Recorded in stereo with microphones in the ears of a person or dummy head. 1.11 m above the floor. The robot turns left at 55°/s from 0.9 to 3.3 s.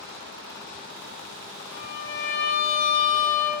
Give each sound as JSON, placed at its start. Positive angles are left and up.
{"t": 1.7, "sound": "a violin", "azimuth_deg": 100, "distance_m": 0.5}